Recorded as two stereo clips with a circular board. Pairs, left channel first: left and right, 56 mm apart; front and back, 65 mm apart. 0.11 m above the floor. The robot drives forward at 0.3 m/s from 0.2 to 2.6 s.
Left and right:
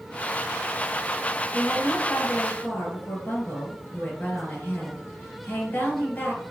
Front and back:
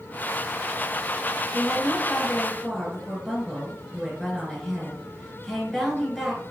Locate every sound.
1.5 s a woman speaking: 65° left, 1.4 m; by 6.4 s 90° left, 1.4 m